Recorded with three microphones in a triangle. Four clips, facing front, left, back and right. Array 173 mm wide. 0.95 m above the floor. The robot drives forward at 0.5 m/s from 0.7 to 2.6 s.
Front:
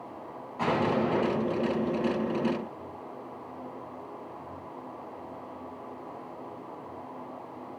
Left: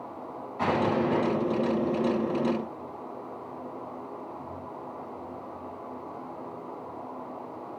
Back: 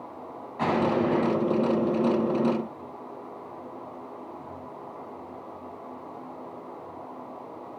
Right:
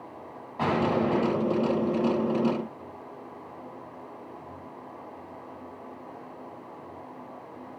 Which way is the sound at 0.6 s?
115° right.